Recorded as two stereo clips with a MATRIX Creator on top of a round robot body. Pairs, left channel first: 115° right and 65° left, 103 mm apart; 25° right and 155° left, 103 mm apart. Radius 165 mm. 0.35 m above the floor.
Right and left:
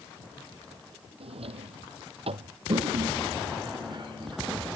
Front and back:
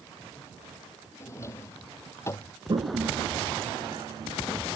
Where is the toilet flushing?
110° left.